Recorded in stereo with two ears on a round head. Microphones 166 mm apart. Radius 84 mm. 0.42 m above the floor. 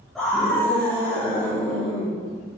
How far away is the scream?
About 4.5 m.